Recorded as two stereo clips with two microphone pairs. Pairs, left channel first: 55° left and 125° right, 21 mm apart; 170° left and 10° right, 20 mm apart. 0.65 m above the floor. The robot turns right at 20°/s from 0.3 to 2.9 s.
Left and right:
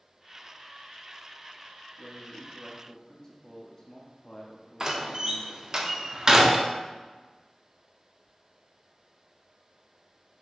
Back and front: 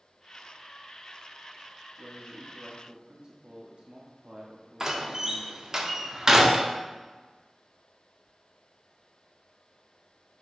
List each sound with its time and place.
2.0 s a man speaking: 10° right, 0.7 m; by 5.8 s 10° left, 0.7 m
4.8 s a door slam: 65° right, 0.5 m